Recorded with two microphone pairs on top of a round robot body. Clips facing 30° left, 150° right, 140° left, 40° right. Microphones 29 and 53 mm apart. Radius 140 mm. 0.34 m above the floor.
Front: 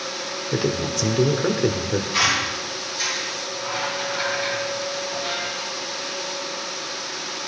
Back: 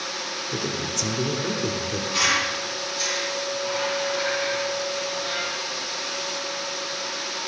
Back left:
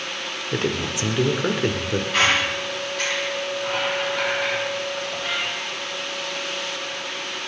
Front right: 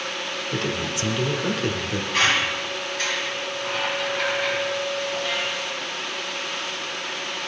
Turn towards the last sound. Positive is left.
turn(degrees=110)